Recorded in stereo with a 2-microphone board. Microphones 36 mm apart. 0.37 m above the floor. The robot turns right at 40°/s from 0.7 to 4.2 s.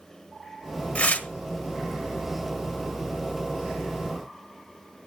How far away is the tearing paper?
About 1.1 m.